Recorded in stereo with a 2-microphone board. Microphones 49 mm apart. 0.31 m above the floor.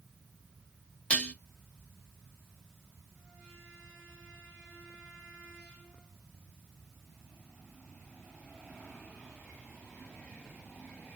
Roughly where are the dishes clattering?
Left.